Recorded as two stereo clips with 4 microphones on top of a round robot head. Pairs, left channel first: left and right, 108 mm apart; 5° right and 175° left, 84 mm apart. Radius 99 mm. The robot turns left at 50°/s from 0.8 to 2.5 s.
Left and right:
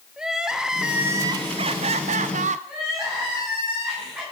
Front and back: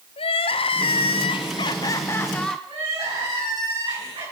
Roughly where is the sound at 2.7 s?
Behind.